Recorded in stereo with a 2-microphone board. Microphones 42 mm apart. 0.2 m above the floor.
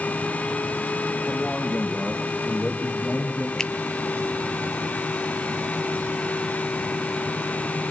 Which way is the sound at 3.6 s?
15° left (ahead or behind).